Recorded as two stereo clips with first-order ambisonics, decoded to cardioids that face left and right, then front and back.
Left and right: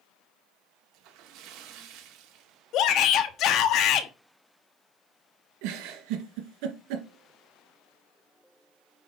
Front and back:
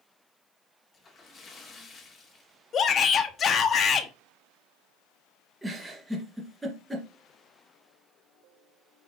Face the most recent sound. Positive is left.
turn(degrees=-95)